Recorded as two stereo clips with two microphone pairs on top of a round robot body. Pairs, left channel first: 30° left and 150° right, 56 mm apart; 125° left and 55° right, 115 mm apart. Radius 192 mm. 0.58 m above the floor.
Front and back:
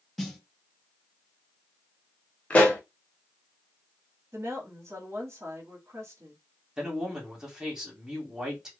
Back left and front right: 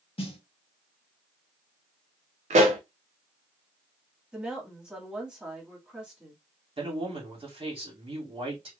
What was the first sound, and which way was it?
A snare drum, 110° left.